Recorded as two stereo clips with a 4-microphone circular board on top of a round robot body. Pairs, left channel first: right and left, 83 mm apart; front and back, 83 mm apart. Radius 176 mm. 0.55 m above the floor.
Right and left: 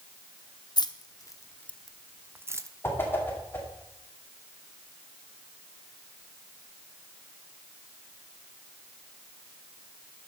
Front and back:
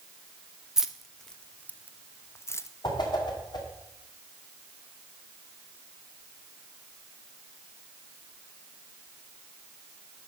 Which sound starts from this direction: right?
Keys jangling, at 0.8 s.